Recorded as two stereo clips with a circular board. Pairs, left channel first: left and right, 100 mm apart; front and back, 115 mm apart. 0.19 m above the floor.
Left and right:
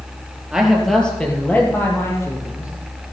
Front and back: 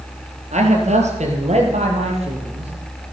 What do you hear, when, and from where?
0.5 s a man speaking: 175° right, 3.5 m; by 2.7 s 145° left, 5.5 m